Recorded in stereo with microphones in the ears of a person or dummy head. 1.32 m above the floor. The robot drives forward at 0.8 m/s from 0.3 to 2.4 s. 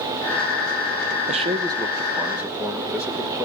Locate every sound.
1.3 s a man speaking: 50° right (ahead or behind), 0.5 m; by 3.5 s 15° right (ahead or behind), 1.3 m